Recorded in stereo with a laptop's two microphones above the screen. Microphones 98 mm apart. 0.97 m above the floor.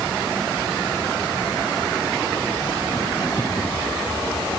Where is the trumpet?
No trumpet in this recording.